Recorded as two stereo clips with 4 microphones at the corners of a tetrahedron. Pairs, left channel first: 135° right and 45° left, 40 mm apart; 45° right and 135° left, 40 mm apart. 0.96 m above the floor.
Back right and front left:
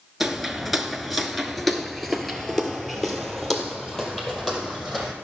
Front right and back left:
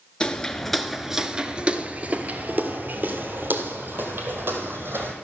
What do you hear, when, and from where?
0.2 s footsteps: 25° right, 0.9 m; by 5.1 s 145° left, 2.5 m